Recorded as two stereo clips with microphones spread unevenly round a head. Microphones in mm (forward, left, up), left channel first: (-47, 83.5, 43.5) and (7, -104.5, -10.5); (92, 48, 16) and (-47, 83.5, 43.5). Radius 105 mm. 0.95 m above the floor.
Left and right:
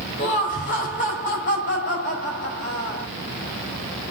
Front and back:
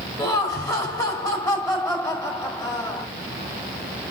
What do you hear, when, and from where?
0.2 s laughter: 50° left, 4 m